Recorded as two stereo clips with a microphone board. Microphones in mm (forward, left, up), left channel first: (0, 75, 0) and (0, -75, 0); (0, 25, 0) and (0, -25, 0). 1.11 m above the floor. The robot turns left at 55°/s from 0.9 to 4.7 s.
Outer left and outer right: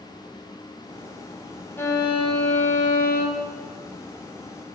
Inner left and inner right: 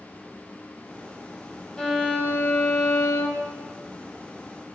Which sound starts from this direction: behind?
A violin, at 1.8 s.